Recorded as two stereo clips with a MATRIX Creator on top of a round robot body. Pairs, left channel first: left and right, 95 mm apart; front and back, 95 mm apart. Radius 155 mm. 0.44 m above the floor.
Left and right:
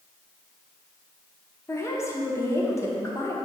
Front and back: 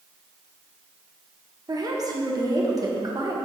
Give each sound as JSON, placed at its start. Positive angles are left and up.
{"t": 1.7, "sound": "a woman speaking", "azimuth_deg": 145, "distance_m": 1.4}